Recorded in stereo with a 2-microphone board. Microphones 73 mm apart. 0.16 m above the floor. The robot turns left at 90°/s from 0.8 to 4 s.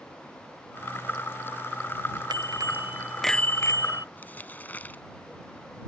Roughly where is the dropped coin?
I don't hear a dropped coin.